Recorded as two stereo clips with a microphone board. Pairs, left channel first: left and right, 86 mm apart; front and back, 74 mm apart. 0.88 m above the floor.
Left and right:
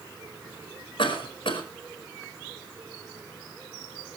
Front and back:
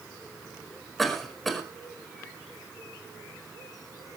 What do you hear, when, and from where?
1.0 s a cough: 90° left, 5 m